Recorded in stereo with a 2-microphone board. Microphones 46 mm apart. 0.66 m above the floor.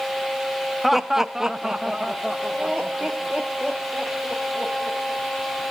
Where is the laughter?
Centre (ahead or behind), 0.7 m; by 5.2 s 5° right (ahead or behind), 4 m.